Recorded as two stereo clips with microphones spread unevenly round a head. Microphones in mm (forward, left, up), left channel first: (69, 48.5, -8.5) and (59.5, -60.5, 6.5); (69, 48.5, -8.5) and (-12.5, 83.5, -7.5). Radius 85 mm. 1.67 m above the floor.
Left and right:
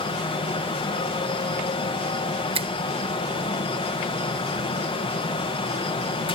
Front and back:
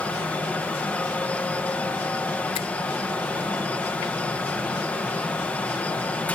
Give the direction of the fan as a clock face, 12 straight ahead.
10 o'clock.